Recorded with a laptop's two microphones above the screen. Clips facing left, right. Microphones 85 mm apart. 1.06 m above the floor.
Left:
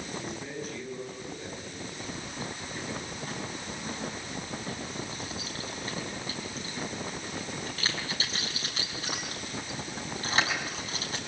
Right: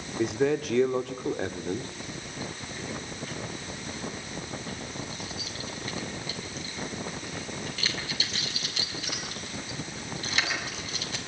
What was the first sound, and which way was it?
A man speaking, 80° right.